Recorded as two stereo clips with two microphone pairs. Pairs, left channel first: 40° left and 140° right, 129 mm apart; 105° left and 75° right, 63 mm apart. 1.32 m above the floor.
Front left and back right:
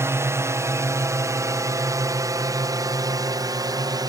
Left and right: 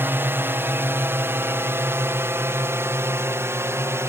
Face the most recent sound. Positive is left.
turn(degrees=-90)